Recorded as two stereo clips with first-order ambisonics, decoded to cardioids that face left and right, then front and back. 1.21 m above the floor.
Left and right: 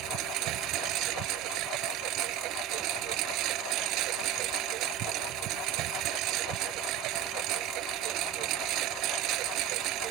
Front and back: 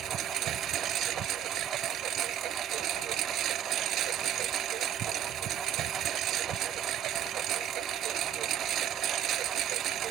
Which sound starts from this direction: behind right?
A lawn mower, at 0.0 s.